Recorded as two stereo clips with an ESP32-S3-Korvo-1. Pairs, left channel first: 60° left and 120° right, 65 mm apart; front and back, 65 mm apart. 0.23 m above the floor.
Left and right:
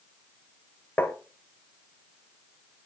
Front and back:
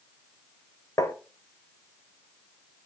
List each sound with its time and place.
1.0 s tapping: 5° left, 0.9 m